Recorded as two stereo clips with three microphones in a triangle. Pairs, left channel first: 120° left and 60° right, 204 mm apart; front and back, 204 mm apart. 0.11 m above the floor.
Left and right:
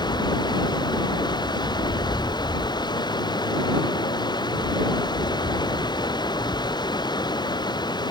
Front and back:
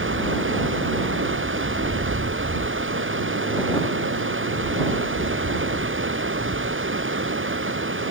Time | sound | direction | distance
0.0 | running water | 170° right | ?